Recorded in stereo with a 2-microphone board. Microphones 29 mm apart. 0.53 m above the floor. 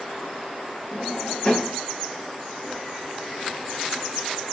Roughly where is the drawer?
Left.